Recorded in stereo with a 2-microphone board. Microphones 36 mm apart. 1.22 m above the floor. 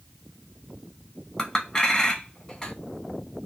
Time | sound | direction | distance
1.4 | a clink | 20° left (ahead or behind) | 0.8 m